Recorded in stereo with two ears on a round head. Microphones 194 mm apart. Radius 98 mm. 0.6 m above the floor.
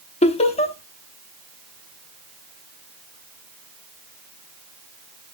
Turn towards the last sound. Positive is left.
turn(degrees=30)  # may be behind; listen again after turning